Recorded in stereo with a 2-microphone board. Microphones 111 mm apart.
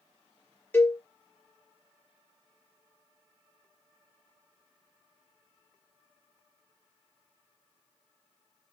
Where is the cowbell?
15° left (ahead or behind), 0.7 m.